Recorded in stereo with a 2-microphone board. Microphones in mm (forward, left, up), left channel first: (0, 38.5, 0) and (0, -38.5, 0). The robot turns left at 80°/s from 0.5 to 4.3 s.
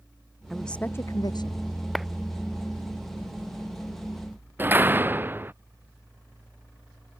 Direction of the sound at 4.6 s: 25° right (ahead or behind).